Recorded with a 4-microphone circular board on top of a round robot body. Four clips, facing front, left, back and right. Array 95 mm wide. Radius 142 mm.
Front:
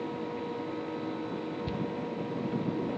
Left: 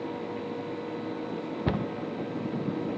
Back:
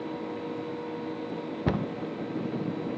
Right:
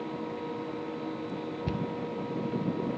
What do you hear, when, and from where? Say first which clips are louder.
1.7 s a cupboard door: left 5 dB, back 9 dB; 150° left, 0.5 m